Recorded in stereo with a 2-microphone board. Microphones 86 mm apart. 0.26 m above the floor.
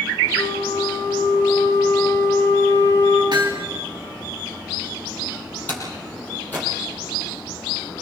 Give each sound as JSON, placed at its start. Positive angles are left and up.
{"t": 0.4, "sound": "a flute", "side_deg": 35, "distance_m": 9.0}
{"t": 3.3, "sound": "hammering", "side_deg": -60, "distance_m": 4.5}
{"t": 5.7, "sound": "a door slam", "side_deg": 20, "distance_m": 6.5}